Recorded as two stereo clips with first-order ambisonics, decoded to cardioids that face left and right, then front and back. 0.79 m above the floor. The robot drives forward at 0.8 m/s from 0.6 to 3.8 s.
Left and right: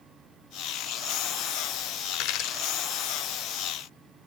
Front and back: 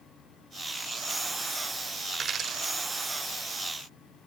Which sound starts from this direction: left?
A dropped coin, at 2.1 s.